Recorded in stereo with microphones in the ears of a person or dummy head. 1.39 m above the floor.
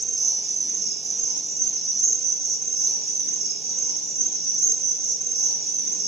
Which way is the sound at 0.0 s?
Centre (ahead or behind).